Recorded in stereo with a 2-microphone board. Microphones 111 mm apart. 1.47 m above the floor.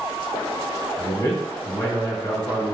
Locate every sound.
1.0 s a man speaking: 30° left (ahead or behind), 1.3 m